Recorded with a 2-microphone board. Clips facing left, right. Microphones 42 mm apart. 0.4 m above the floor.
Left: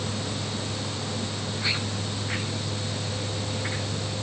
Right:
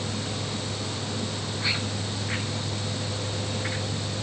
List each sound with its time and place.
Only background noise.